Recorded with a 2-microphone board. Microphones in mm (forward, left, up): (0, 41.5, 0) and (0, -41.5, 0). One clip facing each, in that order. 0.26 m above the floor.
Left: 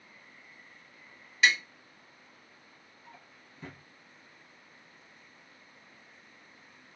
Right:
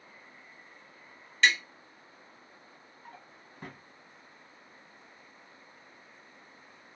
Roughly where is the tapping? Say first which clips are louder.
Even; centre.